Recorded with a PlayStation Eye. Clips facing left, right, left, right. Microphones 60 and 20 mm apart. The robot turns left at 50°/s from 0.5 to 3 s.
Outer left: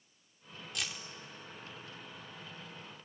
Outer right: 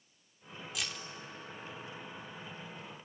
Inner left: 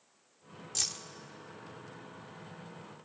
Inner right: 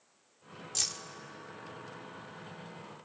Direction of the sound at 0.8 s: 5° right (ahead or behind).